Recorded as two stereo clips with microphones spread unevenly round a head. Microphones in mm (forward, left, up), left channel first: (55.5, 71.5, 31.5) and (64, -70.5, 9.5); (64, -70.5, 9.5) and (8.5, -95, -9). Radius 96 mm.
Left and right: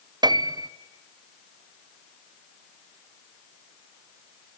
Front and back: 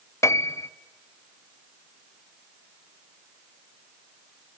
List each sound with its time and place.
0.2 s a piano: 25° right, 0.8 m